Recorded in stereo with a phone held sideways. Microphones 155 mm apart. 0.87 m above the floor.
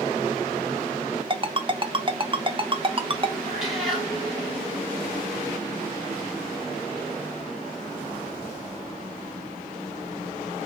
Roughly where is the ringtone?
Right.